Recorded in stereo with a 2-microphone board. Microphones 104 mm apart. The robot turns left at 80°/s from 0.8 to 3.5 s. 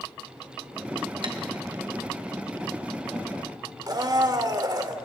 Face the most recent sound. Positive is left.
turn(degrees=-40)  # may be behind; listen again after turning